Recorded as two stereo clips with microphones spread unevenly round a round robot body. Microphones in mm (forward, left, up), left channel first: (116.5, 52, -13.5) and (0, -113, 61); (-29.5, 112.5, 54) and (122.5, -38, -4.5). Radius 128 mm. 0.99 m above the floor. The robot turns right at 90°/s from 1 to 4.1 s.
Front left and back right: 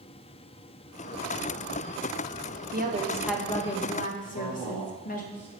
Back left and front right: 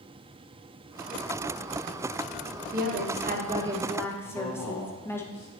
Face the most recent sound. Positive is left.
turn(degrees=135)